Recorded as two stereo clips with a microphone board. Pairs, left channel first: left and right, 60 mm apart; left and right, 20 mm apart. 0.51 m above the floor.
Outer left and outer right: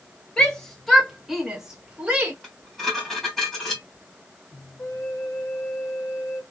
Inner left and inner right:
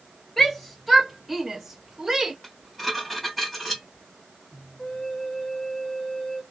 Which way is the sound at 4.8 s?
50° left (ahead or behind).